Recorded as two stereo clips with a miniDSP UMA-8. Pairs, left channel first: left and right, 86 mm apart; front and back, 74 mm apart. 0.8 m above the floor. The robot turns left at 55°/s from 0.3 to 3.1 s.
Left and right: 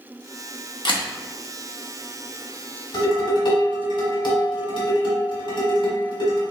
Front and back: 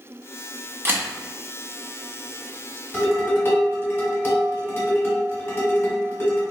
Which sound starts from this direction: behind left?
A camera shutter, at 0.8 s.